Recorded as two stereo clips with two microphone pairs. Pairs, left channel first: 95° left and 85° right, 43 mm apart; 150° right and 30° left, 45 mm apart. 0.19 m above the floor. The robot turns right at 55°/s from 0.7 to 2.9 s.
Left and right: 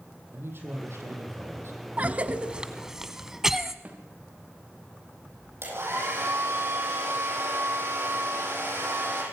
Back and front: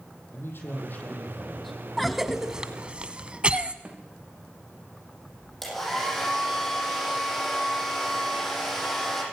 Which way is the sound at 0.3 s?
120° right.